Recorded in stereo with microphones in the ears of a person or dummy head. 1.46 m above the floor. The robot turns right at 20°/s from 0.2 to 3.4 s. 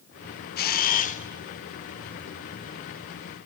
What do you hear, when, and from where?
0.6 s a camera shutter: 50° left (ahead or behind), 0.6 m; by 1.2 s 40° left (ahead or behind), 0.6 m